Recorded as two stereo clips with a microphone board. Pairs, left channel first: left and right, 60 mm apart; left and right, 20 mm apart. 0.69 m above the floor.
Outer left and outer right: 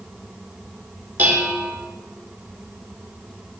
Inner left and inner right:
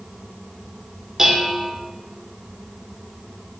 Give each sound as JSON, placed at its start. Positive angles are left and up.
{"t": 1.2, "sound": "dishes clattering", "side_deg": -30, "distance_m": 1.2}